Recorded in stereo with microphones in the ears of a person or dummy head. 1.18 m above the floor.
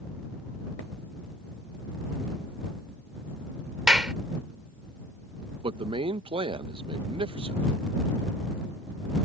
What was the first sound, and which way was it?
A clap, 5° right (ahead or behind).